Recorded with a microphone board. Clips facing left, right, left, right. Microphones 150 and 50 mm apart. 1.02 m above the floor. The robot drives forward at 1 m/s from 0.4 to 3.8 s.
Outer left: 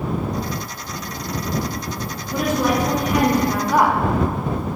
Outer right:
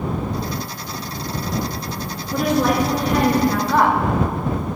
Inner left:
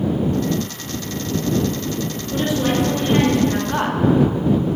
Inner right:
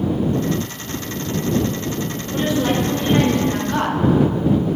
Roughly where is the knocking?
I don't hear knocking.